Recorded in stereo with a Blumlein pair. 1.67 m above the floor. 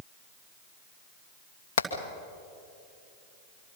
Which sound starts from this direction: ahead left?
Hammering, at 1.8 s.